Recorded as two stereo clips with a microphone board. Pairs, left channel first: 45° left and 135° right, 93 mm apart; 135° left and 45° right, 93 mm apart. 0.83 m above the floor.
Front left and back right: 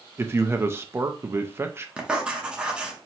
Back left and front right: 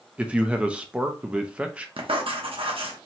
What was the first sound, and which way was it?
A man speaking, 110° right.